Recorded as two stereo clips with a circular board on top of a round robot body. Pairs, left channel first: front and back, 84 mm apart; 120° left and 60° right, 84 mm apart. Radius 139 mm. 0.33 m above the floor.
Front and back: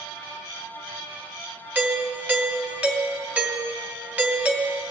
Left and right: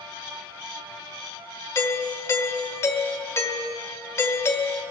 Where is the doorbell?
125° left, 1.9 m.